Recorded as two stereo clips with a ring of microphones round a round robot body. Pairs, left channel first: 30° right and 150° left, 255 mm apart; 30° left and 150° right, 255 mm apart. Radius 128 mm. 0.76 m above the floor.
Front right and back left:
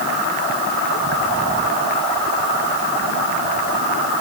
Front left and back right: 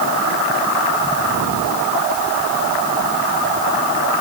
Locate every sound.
Only background noise.